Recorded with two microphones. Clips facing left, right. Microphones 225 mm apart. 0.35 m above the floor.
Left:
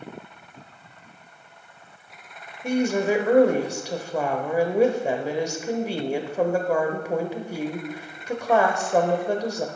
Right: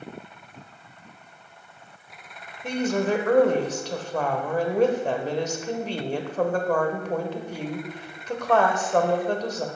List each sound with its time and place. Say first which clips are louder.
2.6 s a woman speaking: left 2 dB; 10° left (ahead or behind), 1.1 m